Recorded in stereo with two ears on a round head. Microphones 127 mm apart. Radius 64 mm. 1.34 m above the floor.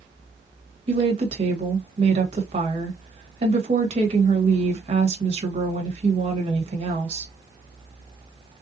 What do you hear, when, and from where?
0.9 s a woman speaking: 40° right (ahead or behind), 1.2 m